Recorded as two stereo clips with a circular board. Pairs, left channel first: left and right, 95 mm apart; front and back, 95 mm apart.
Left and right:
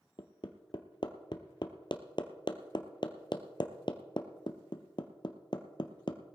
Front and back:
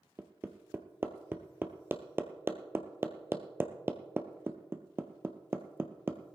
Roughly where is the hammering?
Behind left.